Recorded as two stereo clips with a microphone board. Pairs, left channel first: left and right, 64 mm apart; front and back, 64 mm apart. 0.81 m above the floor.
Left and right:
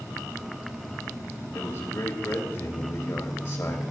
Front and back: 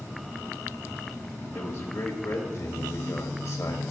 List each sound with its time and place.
1.5 s a man speaking: 50° left, 1.5 m